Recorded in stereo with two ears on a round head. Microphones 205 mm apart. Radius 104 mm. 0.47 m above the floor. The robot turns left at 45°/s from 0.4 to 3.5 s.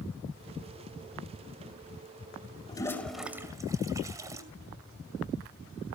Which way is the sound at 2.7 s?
20° left (ahead or behind).